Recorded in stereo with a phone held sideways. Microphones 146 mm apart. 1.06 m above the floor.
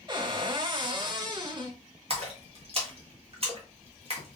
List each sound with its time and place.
0.1 s a cupboard door: 35° right (ahead or behind), 1.0 m
2.1 s a splash: 45° right (ahead or behind), 1.3 m